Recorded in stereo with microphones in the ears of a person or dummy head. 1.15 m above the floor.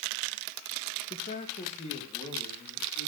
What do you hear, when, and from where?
1.1 s a man speaking: 30° left (ahead or behind), 1.2 m